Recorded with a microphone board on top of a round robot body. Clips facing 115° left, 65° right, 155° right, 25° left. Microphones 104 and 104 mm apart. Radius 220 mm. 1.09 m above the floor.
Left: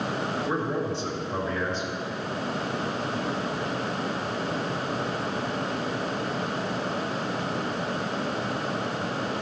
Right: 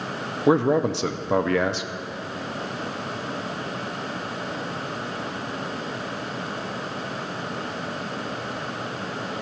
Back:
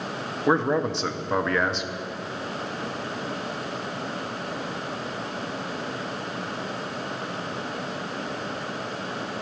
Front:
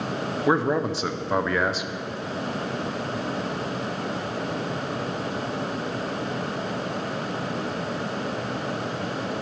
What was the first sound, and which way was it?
A man speaking, 65° right.